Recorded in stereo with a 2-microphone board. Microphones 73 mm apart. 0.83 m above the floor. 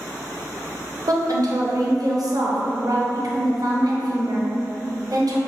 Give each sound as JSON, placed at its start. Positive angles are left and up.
{"t": 1.1, "sound": "a woman speaking", "side_deg": -60, "distance_m": 0.7}